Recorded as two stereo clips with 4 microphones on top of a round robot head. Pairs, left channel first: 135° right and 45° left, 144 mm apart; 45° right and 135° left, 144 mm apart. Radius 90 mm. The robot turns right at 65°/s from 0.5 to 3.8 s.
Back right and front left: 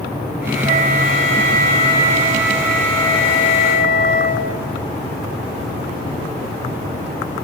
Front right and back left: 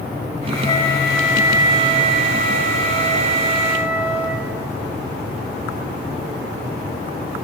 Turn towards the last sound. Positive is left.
turn(degrees=-145)